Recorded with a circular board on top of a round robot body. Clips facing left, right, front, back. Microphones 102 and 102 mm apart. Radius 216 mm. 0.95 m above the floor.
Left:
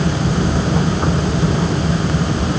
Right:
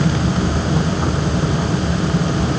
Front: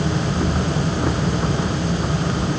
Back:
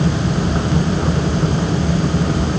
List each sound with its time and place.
Only background noise.